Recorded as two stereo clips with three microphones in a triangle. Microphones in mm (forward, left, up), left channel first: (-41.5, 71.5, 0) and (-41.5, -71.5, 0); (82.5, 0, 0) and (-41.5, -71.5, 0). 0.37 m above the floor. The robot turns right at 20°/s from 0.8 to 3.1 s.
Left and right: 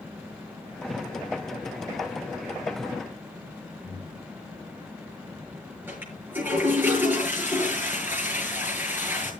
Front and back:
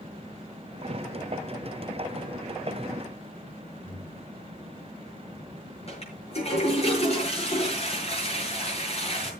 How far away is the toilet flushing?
About 7.5 m.